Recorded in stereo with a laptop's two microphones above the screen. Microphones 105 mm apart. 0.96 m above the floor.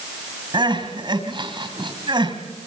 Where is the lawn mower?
I don't hear a lawn mower.